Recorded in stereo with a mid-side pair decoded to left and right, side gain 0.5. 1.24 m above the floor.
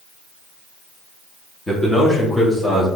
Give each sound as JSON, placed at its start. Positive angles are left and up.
{"t": 1.7, "sound": "a man speaking", "azimuth_deg": 25, "distance_m": 1.7}